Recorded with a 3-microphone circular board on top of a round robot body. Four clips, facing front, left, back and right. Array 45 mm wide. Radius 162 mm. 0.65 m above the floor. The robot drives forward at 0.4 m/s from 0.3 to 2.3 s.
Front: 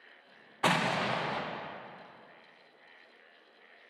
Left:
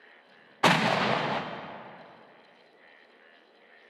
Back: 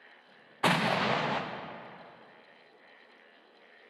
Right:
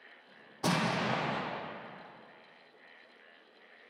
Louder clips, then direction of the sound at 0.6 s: Left 8 dB, back 2 dB; 95° left.